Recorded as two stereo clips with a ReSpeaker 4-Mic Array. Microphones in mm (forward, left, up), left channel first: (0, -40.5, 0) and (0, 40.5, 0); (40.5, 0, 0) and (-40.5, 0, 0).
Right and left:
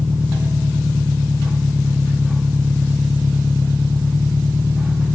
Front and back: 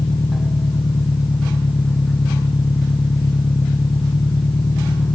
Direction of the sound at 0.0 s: 20° left.